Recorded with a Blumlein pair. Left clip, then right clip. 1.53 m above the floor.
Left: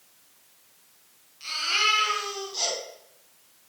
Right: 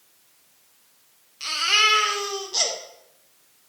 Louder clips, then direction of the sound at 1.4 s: Right 5 dB; 60° right.